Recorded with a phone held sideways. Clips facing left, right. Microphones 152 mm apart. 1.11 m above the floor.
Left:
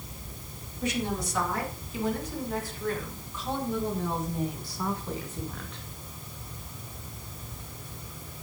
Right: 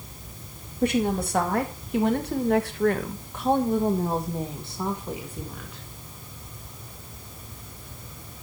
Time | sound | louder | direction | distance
0.8 | a woman speaking | right 7 dB | 55° right (ahead or behind) | 2.5 m